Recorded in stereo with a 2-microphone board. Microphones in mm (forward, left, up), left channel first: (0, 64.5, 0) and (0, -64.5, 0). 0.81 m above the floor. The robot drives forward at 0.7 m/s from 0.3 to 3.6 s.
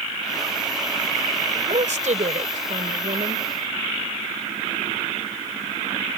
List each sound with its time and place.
1.5 s a woman speaking: 65° right (ahead or behind); by 3.5 s 75° right (ahead or behind)